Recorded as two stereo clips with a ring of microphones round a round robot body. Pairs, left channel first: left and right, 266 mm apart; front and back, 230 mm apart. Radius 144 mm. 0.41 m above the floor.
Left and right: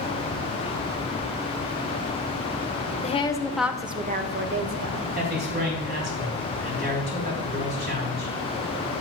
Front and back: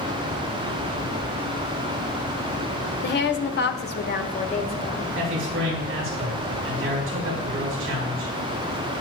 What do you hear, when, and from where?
3.0 s a woman speaking: 30° left, 1.4 m; by 5.0 s 70° right, 1.9 m
5.2 s a man speaking: 140° right, 4.5 m